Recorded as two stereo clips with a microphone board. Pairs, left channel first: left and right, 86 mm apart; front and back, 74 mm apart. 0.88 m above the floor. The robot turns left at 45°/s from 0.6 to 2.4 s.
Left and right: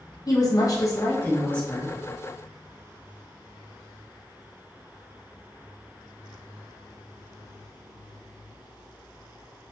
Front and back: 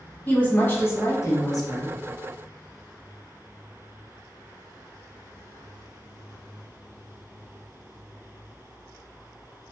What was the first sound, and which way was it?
A woman speaking, 60° left.